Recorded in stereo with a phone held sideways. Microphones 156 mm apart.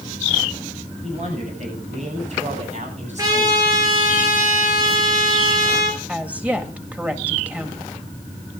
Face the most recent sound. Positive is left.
turn(degrees=-10)  # may be behind; listen again after turning